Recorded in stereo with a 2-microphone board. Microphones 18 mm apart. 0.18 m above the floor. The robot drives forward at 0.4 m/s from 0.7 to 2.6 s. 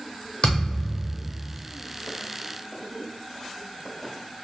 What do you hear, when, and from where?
0.4 s a thud: 60° left (ahead or behind), 1.2 m; by 1.6 s 45° left (ahead or behind), 1.4 m